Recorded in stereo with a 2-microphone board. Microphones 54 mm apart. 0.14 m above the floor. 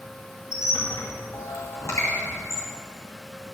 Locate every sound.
0.5 s a squeak: 65° left (ahead or behind), 2.5 m